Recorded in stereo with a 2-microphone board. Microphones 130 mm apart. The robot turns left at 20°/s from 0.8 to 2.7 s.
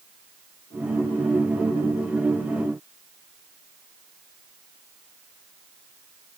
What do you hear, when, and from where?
Only background noise.